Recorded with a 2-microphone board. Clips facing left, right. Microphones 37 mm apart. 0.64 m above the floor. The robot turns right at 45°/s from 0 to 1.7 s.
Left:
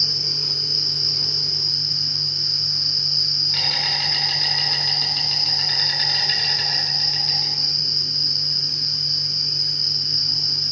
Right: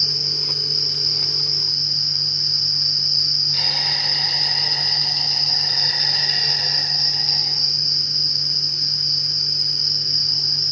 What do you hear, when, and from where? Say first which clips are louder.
0.0 s an insect: right 1 dB; 65° left, 4.5 m; by 10.7 s 145° left, 4.5 m